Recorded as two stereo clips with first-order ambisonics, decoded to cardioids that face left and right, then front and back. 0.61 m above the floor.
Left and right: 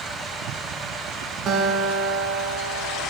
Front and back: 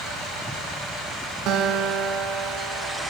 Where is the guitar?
140° right, 1.0 m.